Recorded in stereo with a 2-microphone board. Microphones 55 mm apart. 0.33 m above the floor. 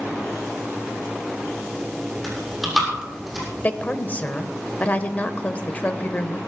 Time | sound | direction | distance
2.2 | chewing | 5° right (ahead or behind) | 6.5 m
3.6 | a woman speaking | 25° left (ahead or behind) | 0.9 m